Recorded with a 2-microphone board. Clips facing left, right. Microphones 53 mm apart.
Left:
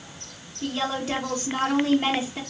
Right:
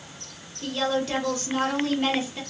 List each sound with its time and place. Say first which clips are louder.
0.6 s a woman speaking: right 2 dB; 15° left (ahead or behind), 0.9 m